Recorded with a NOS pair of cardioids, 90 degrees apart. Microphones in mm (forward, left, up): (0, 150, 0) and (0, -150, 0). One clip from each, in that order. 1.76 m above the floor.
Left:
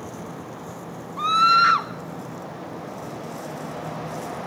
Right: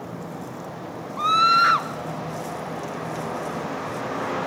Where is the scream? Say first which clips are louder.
Left 1 dB; straight ahead, 0.6 m.